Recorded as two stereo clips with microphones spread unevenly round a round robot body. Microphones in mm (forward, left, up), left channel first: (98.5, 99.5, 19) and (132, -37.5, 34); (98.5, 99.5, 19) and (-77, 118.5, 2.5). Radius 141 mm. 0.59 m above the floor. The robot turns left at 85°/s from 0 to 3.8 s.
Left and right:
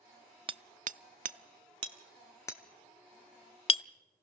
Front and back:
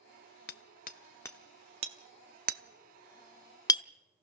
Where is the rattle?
No rattle in this recording.